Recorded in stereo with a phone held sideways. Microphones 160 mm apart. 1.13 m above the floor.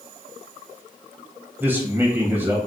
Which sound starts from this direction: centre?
A man speaking, at 1.6 s.